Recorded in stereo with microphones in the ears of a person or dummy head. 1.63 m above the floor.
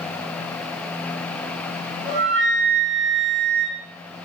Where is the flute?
35° right (ahead or behind), 1.1 m.